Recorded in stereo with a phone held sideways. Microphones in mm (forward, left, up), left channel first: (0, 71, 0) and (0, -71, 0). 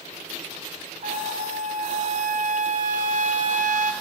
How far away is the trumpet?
About 0.6 m.